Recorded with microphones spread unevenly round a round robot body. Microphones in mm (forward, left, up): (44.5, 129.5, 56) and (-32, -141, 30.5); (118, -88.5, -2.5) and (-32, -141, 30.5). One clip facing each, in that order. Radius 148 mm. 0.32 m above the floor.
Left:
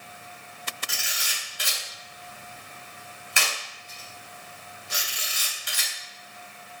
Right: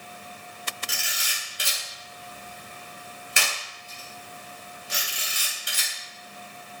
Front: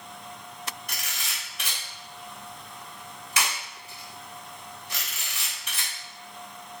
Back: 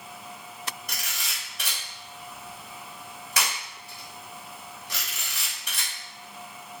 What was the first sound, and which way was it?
A camera shutter, 140° right.